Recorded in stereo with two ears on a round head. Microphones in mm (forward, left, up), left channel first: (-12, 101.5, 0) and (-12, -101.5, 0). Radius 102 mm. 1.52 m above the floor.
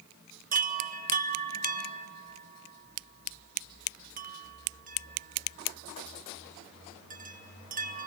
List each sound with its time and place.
0.5 s a chime: 40° right (ahead or behind), 1.6 m